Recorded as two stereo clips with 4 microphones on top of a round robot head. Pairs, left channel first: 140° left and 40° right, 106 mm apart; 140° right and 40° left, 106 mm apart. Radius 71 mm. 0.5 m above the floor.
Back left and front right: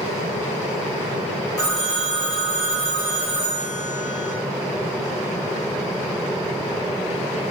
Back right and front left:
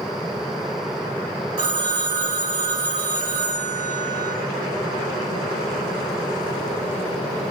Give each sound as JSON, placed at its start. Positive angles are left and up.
{"t": 1.6, "sound": "a phone ringing", "azimuth_deg": 90, "distance_m": 3.0}